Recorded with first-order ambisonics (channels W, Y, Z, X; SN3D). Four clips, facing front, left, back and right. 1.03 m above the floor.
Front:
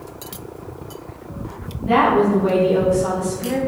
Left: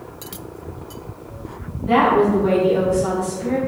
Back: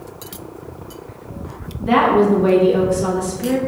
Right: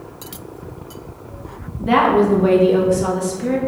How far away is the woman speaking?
About 1.0 m.